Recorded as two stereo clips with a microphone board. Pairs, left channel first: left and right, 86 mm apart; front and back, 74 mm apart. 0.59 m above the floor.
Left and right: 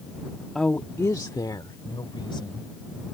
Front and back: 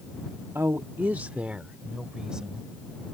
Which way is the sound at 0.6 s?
175° left.